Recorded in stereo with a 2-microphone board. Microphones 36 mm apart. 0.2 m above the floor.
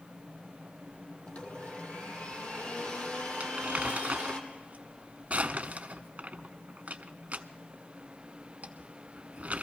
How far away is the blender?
About 1.9 m.